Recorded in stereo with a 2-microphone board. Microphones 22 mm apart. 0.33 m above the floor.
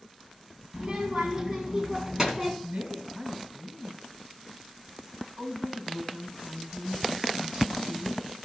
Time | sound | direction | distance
0.7 | a child speaking | 35° right (ahead or behind) | 1.9 m
2.6 | a woman speaking | 55° right (ahead or behind) | 2 m